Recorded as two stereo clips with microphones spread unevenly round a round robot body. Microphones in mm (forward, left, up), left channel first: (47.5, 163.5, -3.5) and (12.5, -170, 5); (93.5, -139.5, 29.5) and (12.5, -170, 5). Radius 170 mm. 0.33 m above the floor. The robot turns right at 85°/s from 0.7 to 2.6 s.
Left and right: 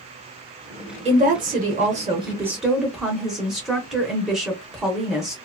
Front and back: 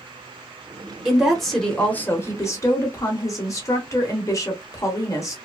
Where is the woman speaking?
140° right, 0.9 m; by 5.3 s 5° right, 0.9 m.